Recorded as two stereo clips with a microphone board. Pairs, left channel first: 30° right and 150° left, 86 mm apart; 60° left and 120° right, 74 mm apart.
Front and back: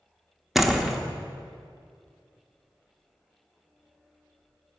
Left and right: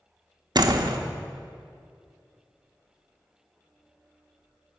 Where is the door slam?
125° right, 0.9 m.